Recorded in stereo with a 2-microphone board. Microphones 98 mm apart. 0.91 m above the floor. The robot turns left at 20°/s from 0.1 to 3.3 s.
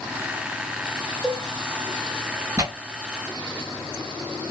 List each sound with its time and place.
1.2 s a cowbell: centre (ahead or behind), 0.8 m; by 1.4 s 5° left (ahead or behind), 0.8 m
2.6 s tearing paper: 30° right (ahead or behind), 1.4 m; by 2.7 s 35° right (ahead or behind), 1.4 m